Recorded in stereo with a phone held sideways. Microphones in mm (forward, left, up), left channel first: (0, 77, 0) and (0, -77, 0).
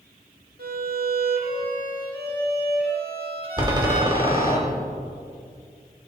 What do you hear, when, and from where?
0.6 s a violin: 80° right, 2.5 m
3.6 s a door slam: 25° right (ahead or behind), 2.5 m